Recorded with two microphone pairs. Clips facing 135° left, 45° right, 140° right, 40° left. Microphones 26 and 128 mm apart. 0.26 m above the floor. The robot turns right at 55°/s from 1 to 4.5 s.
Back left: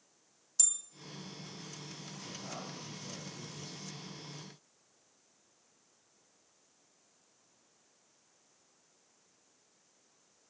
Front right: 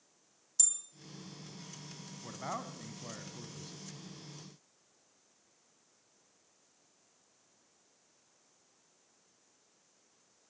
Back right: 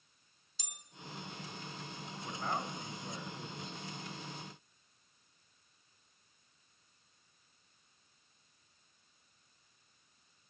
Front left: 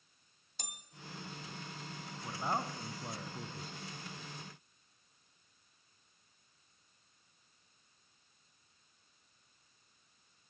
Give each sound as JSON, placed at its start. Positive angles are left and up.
{"t": 0.6, "sound": "a bell", "azimuth_deg": 55, "distance_m": 2.0}
{"t": 2.2, "sound": "a man speaking", "azimuth_deg": -40, "distance_m": 2.5}